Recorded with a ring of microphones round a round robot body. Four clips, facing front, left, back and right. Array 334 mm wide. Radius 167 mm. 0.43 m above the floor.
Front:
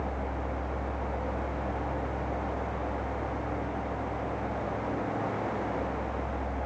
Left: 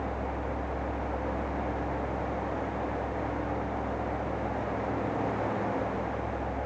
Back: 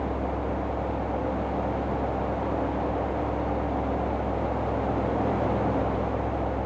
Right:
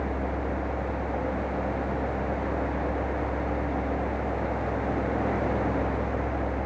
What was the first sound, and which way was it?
Only background noise.